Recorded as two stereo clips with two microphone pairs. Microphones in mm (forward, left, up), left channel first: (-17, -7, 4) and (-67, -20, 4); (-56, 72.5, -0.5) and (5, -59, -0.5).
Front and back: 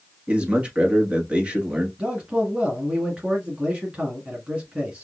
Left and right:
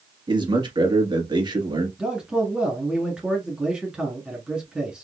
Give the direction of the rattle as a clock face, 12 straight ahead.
I don't hear a rattle.